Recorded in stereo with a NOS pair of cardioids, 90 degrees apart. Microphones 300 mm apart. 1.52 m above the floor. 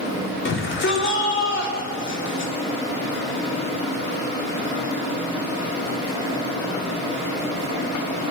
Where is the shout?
40° left, 4 m.